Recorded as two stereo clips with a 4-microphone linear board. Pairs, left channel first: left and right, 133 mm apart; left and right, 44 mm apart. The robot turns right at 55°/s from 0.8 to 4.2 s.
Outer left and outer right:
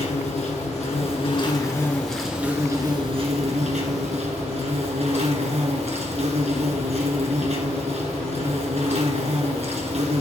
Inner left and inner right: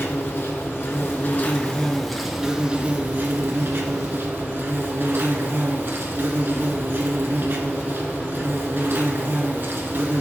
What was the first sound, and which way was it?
An insect, 105° left.